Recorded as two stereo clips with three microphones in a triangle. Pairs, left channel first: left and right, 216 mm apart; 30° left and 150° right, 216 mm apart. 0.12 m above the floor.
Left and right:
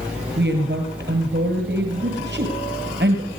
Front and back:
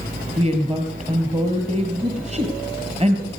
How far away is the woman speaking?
About 2 m.